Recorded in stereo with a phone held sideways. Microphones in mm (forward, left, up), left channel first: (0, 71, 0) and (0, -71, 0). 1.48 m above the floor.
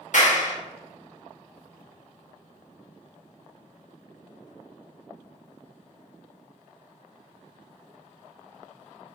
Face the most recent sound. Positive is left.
turn(degrees=60)  # may be behind; listen again after turning